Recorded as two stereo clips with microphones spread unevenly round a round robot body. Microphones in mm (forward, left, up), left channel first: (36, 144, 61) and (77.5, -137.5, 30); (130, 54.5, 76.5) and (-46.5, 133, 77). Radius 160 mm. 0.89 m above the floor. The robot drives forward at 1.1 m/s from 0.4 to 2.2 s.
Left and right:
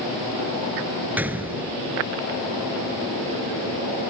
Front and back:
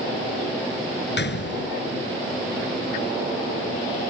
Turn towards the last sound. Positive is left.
turn(degrees=5)